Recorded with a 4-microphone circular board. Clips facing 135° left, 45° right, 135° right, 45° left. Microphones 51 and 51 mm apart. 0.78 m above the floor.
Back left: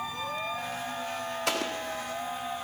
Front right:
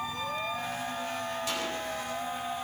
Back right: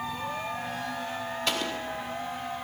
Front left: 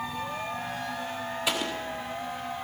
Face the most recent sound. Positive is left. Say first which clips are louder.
# back left 6 dB, front left 1 dB
turn(degrees=125)